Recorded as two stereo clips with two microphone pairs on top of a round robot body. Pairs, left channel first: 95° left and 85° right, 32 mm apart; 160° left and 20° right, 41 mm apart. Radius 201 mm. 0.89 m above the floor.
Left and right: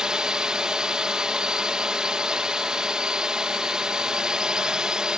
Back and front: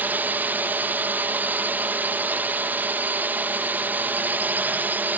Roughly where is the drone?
Ahead right.